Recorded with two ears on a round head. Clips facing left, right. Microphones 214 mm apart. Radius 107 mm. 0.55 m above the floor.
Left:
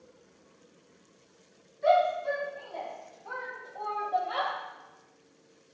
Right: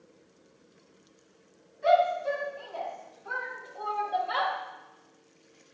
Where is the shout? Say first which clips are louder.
Right 1 dB; centre (ahead or behind), 6 m; by 4.5 s 30° right (ahead or behind), 3 m.